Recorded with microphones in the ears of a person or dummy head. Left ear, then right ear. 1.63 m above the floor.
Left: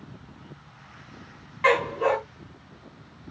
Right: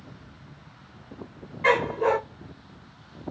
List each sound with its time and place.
1.6 s a dog barking: 20° left (ahead or behind), 1.2 m